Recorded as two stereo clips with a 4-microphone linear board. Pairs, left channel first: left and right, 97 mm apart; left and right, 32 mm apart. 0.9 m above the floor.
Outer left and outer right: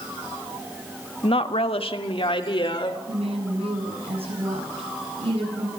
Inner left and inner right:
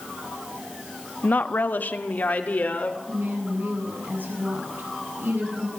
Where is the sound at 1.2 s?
65° left (ahead or behind), 1.2 m; by 3.0 s 55° left (ahead or behind), 3 m.